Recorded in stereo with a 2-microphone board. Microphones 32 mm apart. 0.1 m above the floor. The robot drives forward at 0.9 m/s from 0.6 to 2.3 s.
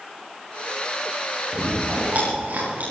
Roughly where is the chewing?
Right.